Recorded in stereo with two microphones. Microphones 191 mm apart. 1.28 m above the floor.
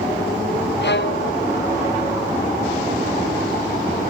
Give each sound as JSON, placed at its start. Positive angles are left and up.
{"t": 0.8, "sound": "a violin", "side_deg": 65, "distance_m": 0.9}